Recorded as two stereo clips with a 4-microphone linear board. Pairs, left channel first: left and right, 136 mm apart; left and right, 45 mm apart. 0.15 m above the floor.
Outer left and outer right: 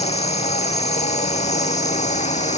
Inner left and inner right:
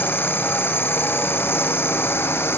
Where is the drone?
55° left (ahead or behind); by 2.6 s 60° left (ahead or behind).